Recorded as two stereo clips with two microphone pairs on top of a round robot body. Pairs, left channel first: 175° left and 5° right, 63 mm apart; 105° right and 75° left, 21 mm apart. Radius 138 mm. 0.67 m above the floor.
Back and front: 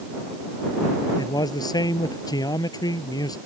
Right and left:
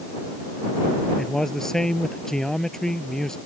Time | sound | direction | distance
1.2 | a man speaking | 175° right | ?